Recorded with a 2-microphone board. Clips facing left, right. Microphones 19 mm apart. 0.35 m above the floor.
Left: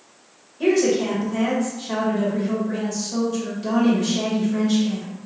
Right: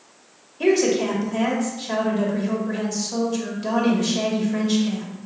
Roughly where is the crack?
No crack in this recording.